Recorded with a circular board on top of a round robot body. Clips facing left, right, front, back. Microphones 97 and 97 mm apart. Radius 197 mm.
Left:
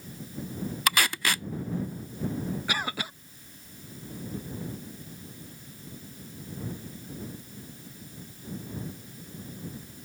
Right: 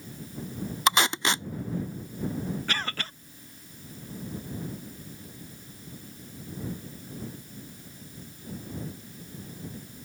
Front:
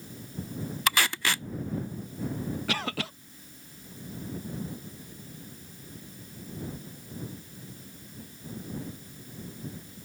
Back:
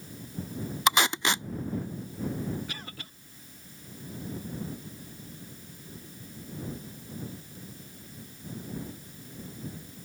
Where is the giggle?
No giggle in this recording.